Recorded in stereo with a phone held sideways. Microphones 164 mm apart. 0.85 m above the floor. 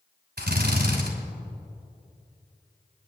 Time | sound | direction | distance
0.4 | a drill | 85° right | 2.5 m